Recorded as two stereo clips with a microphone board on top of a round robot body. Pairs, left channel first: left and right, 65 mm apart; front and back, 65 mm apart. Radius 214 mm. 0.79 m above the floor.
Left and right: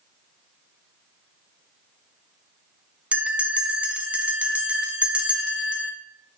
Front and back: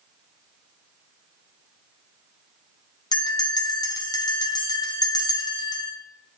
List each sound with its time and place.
3.1 s a bell: 15° right, 0.8 m